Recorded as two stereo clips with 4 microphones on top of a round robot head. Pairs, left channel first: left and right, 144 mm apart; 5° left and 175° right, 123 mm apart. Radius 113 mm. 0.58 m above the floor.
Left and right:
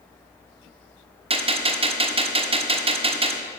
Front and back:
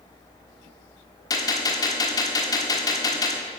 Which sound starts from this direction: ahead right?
A gunshot, at 1.3 s.